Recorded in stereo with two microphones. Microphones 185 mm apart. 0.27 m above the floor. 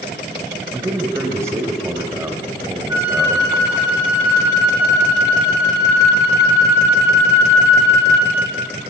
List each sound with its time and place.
0.7 s a man speaking: 15° right (ahead or behind), 1.1 m
2.9 s a flute: 20° right (ahead or behind), 4.5 m